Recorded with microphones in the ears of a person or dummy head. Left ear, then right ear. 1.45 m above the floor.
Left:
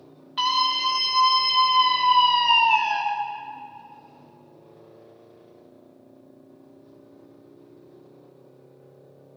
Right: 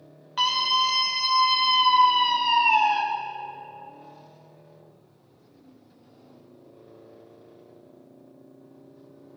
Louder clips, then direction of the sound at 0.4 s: Even; 25° right (ahead or behind).